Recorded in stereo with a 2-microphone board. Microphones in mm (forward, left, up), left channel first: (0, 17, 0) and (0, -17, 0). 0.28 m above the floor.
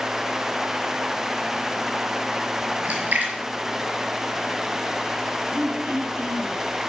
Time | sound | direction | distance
2.9 | a splash | 60° right (ahead or behind) | 4.5 m
5.5 | throat clearing | 60° right (ahead or behind) | 4 m